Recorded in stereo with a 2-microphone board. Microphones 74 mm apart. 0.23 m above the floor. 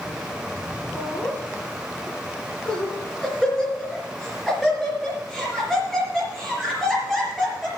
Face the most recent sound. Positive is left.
turn(degrees=0)  # may be behind; listen again after turning